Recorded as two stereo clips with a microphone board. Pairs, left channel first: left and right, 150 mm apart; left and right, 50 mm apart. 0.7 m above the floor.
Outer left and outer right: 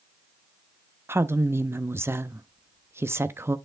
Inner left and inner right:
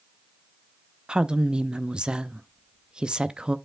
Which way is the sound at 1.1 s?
15° right (ahead or behind).